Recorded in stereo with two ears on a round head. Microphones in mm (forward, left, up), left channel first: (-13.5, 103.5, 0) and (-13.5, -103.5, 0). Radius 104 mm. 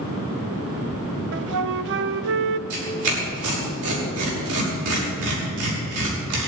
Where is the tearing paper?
75° right (ahead or behind), 6 m.